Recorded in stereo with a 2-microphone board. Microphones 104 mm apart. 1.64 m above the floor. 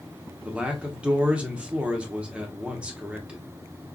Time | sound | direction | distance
0.5 | a man speaking | 10° right (ahead or behind) | 0.8 m